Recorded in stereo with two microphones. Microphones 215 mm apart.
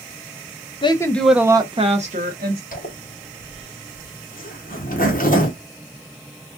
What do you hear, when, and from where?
0.8 s a woman speaking: 25° left (ahead or behind), 0.5 m; by 2.6 s 45° right (ahead or behind), 0.9 m
2.7 s a zipper: 40° left (ahead or behind), 1.1 m